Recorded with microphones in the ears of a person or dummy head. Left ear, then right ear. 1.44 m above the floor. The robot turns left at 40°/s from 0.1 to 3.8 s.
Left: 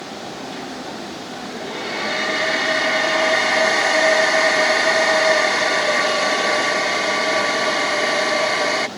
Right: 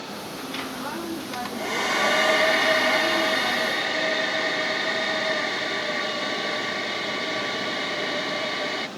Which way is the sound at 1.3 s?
115° right.